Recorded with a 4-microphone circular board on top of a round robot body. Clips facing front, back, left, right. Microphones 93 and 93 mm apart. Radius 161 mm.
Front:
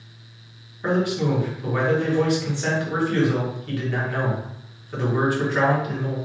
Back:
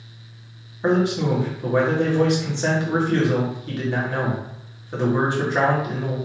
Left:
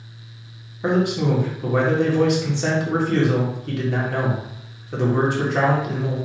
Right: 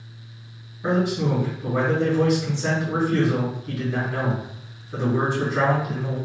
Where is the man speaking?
115° left, 2.0 m.